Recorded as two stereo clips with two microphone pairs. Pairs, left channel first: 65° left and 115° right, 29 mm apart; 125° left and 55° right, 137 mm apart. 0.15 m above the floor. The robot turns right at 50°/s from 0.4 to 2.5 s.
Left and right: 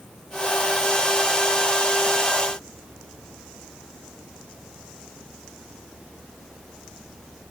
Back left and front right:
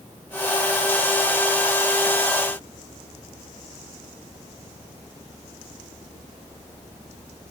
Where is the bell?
I don't hear a bell.